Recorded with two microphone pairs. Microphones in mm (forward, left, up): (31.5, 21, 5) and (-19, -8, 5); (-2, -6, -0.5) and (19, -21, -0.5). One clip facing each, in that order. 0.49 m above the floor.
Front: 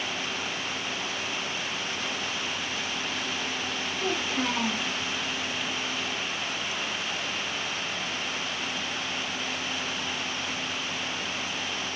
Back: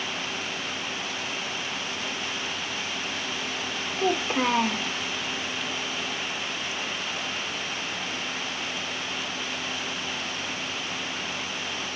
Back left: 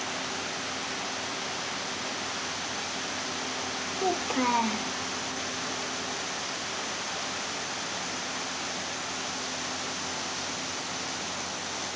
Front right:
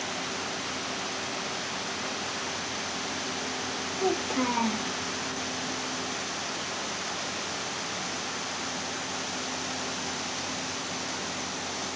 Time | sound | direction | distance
4.0 | a child speaking | 140° right | 0.7 m